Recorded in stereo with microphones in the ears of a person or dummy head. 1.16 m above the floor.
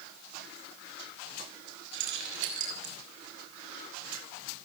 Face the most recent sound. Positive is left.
turn(degrees=-70)  # may be behind; listen again after turning